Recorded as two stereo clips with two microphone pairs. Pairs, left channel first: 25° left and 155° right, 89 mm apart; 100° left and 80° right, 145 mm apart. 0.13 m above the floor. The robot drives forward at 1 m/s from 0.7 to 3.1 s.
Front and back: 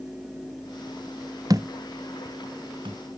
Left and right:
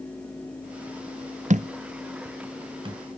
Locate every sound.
1.5 s a thud: 110° right; by 3.0 s 135° right